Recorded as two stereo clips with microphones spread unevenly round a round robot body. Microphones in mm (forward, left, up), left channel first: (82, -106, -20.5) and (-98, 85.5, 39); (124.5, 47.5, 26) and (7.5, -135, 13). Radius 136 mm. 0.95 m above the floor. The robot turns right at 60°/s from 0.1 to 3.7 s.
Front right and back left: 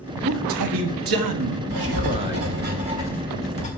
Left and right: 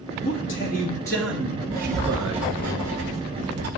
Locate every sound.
0.2 s a man speaking: 90° left, 1.4 m; by 2.5 s 140° right, 1.4 m
1.7 s writing: 130° left, 1.7 m; by 3.7 s 110° right, 1.7 m